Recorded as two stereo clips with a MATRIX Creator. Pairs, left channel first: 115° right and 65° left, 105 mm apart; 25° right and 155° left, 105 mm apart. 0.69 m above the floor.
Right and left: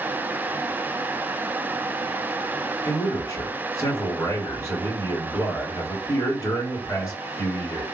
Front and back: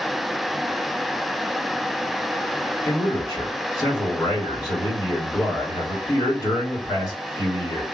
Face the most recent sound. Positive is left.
turn(degrees=-65)